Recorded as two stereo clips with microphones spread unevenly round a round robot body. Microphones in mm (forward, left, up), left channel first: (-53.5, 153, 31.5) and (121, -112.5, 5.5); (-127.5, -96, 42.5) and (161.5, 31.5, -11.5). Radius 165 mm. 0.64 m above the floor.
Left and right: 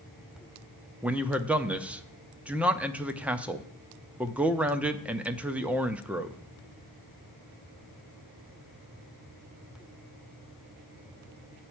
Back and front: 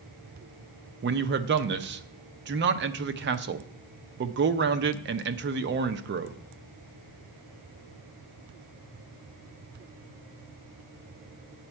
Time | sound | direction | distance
1.0 | a man speaking | 20° left | 0.7 m